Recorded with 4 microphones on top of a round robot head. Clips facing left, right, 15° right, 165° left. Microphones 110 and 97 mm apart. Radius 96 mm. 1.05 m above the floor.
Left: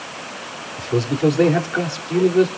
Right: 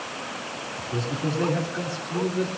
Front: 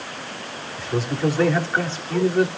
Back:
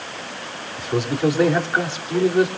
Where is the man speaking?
95° left, 3.5 m.